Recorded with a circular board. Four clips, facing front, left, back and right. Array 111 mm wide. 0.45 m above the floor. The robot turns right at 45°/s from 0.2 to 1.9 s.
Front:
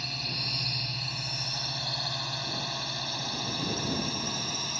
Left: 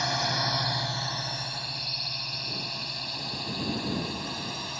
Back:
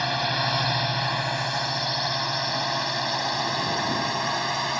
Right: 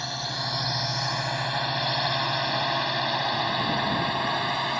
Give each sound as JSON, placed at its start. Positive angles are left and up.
{"t": 0.0, "sound": "a drone", "azimuth_deg": 165}